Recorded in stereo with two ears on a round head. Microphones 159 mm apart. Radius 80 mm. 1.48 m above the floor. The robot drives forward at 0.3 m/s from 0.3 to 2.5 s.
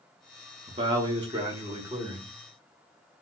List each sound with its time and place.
0.7 s a man speaking: 30° right (ahead or behind), 0.8 m; by 2.3 s 20° right (ahead or behind), 1.3 m